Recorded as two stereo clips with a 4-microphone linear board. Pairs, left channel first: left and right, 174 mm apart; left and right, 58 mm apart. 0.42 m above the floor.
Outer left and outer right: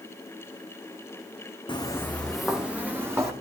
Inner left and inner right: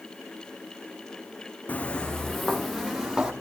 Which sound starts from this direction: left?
Footsteps, at 1.7 s.